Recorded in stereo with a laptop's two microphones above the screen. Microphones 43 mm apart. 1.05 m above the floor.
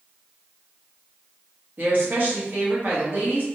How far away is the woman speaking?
About 1.2 m.